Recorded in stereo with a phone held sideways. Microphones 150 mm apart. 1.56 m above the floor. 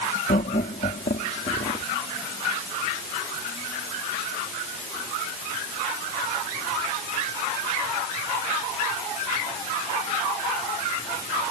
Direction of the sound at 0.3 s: 90° left.